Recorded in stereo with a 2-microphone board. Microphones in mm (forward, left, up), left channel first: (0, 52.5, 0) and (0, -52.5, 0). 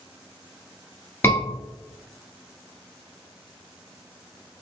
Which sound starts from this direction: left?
A scream, at 1.2 s.